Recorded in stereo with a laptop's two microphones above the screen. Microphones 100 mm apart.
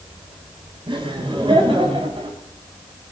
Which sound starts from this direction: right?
Laughter, at 0.9 s.